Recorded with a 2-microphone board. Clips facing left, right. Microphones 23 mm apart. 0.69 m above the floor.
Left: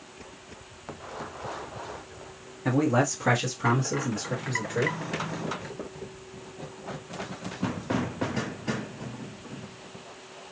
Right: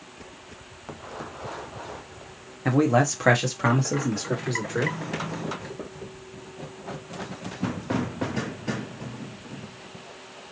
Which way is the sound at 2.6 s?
15° right (ahead or behind).